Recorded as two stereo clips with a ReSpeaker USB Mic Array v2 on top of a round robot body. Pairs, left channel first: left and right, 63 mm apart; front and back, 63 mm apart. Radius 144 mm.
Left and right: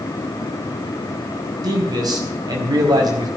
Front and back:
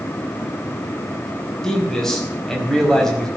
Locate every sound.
1.6 s a man speaking: 85° right, 4.5 m